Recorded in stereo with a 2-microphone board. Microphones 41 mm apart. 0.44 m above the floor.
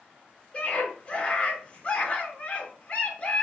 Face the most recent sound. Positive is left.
turn(degrees=30)  # may be behind; listen again after turning